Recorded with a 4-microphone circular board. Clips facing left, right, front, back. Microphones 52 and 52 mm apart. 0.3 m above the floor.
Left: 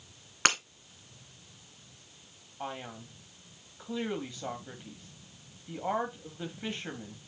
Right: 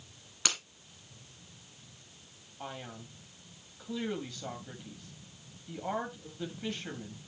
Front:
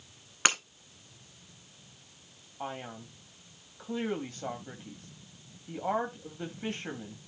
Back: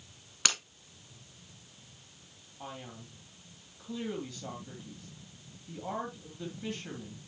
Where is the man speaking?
30° left, 2 m.